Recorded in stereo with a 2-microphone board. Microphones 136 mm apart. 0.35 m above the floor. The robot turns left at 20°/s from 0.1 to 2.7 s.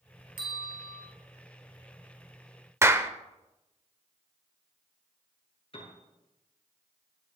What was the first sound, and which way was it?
A bell, 85° left.